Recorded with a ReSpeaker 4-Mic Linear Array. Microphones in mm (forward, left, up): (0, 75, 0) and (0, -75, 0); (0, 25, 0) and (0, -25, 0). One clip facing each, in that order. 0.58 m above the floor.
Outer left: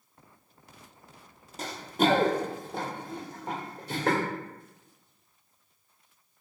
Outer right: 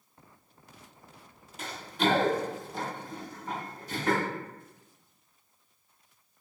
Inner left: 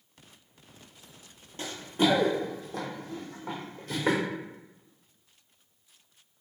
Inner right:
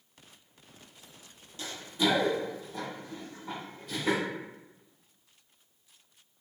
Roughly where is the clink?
No clink in this recording.